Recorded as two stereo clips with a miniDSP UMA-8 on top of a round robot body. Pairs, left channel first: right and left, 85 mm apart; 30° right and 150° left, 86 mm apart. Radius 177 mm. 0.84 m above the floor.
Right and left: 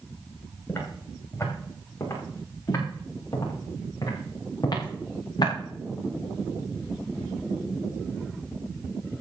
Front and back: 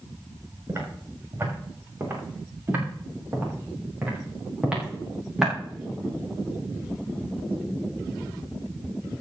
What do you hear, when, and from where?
0.7 s footsteps: 150° right, 7 m; by 5.5 s 125° right, 5 m